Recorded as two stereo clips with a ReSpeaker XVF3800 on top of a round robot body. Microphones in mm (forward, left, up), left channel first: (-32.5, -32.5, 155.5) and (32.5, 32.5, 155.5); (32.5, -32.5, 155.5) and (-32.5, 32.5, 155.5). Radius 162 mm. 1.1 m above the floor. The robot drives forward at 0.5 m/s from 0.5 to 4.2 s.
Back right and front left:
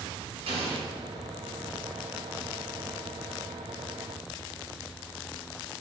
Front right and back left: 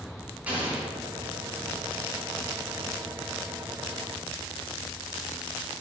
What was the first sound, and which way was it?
An explosion, 60° left.